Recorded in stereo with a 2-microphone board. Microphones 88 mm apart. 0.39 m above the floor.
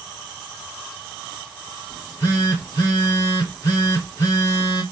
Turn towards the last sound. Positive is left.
turn(degrees=35)  # may be behind; listen again after turning